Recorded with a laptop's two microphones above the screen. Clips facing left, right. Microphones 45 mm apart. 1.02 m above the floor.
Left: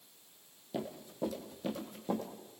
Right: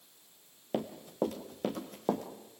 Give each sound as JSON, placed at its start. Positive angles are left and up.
{"t": 0.7, "sound": "running footsteps", "side_deg": -50, "distance_m": 1.8}